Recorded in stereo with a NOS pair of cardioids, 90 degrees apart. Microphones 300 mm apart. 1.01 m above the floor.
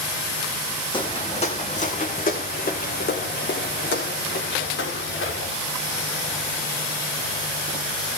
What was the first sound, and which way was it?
Footsteps, 15° left.